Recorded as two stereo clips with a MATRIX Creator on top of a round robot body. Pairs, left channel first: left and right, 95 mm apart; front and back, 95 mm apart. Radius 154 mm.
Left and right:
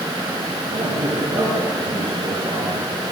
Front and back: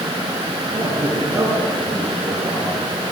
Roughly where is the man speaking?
Right.